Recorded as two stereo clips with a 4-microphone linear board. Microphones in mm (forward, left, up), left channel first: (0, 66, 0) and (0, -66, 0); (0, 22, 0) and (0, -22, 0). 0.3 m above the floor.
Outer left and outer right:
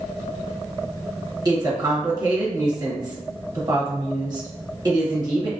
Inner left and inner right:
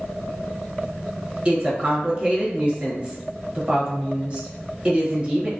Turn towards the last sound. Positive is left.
turn(degrees=-30)  # may be behind; listen again after turning